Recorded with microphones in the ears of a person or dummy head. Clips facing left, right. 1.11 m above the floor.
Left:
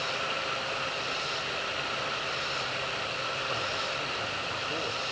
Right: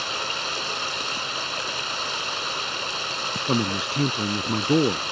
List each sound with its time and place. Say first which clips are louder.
0.0 s running water: right 1 dB; 60° right (ahead or behind)
3.5 s a man speaking: right 15 dB; 60° right (ahead or behind)